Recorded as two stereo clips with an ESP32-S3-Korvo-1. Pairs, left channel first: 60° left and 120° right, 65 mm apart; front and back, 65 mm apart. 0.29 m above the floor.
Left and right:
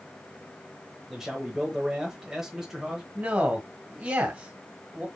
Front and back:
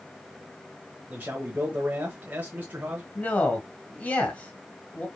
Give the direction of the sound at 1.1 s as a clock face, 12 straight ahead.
7 o'clock.